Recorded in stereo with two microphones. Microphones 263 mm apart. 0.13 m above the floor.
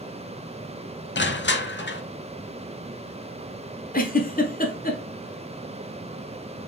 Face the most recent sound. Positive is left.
turn(degrees=35)  # may be behind; listen again after turning